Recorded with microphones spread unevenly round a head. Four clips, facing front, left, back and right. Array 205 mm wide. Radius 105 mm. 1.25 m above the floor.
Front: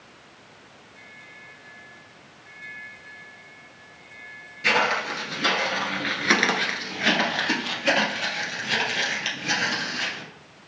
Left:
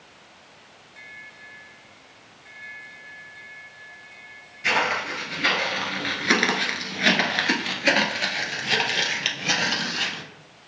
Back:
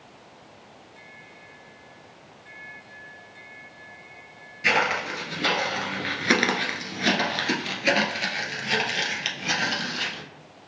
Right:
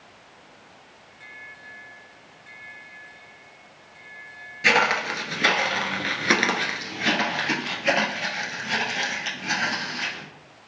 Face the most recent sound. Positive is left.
turn(degrees=100)